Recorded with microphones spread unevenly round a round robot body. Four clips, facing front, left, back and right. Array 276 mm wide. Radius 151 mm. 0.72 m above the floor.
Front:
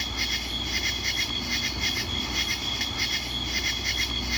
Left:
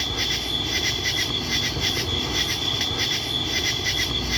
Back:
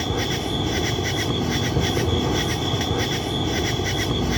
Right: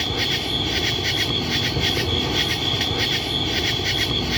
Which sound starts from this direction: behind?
An insect, at 0.0 s.